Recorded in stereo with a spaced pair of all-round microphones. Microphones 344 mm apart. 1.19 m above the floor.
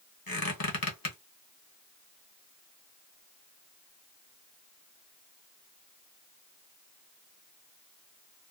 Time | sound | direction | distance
0.3 | a squeak | 75° left (ahead or behind) | 0.9 m